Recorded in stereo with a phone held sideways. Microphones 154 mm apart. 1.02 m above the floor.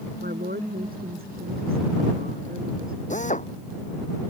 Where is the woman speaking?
80° right; by 3.0 s 75° right (ahead or behind).